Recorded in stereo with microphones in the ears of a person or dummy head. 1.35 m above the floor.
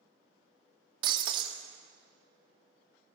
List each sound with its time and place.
1.0 s breaking glass: 25° right (ahead or behind), 1.3 m